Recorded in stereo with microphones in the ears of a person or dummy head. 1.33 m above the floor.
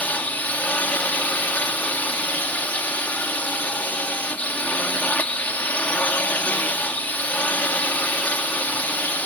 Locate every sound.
0.0 s a drone: 10° left (ahead or behind)